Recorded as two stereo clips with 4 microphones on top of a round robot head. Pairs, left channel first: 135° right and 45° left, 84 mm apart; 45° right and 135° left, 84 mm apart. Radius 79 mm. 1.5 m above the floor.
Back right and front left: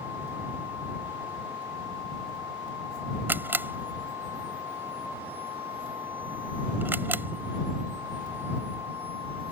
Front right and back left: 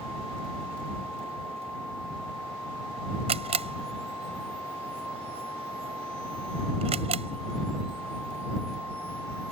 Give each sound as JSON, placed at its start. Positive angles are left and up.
{"t": 3.3, "sound": "a camera shutter", "azimuth_deg": 115}